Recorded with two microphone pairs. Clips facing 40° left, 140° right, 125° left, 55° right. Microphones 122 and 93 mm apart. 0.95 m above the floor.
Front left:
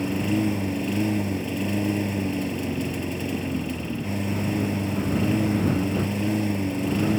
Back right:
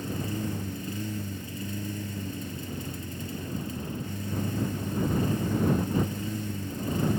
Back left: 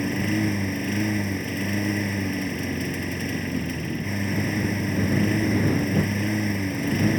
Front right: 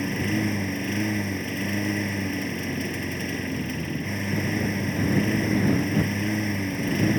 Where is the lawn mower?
35° left.